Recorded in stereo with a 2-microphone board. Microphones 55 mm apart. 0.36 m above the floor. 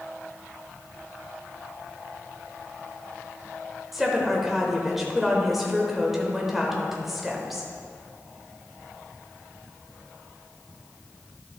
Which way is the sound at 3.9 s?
5° right (ahead or behind).